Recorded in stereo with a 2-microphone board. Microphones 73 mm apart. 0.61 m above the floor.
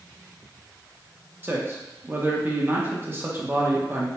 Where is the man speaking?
30° right (ahead or behind), 0.7 m.